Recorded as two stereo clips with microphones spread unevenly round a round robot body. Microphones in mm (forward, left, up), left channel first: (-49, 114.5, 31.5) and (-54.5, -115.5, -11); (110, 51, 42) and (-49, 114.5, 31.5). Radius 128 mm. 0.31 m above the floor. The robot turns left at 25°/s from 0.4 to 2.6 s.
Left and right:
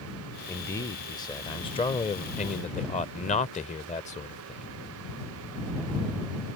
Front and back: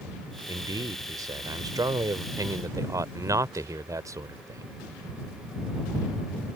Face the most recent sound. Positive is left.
turn(degrees=130)